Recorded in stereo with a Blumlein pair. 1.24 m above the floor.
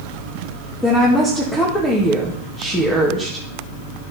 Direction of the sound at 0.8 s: 10° left.